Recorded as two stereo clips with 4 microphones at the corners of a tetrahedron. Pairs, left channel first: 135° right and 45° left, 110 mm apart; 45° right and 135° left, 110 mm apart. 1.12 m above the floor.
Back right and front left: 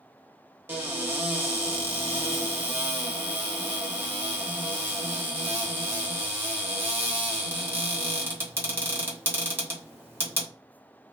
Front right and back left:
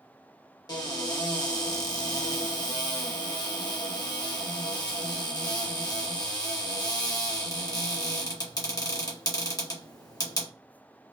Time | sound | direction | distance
0.7 | a cupboard door | 15° right | 1.0 m